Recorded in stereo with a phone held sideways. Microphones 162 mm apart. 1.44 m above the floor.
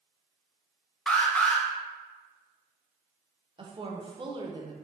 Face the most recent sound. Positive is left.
turn(degrees=-30)  # may be behind; listen again after turning